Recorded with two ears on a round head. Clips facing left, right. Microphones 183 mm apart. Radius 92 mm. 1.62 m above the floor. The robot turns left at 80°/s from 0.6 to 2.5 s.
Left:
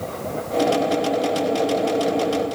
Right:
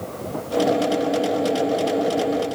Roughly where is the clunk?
I don't hear a clunk.